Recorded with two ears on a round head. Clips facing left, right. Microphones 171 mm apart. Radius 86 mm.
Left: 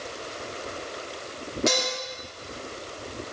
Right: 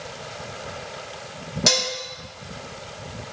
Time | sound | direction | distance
1.7 | dishes clattering | 55° right (ahead or behind) | 1.3 m